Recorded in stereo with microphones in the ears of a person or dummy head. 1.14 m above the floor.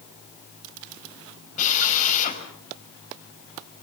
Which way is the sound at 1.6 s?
45° left (ahead or behind).